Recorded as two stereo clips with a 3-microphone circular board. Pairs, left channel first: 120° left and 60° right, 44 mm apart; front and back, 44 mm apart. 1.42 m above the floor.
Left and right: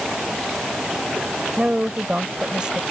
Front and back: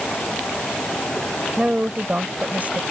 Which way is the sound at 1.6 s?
120° right.